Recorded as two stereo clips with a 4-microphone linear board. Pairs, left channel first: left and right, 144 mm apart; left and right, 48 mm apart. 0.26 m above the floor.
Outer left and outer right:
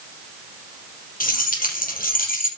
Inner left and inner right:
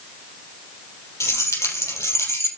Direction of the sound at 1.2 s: 80° left.